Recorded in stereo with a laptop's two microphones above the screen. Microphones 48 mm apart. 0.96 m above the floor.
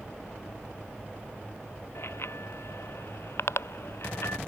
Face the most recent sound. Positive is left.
turn(degrees=65)  # may be behind; listen again after turning